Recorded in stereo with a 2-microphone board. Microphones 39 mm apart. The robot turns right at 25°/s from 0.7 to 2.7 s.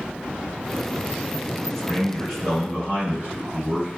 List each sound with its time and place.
1.8 s a man speaking: 30° right (ahead or behind), 1.6 m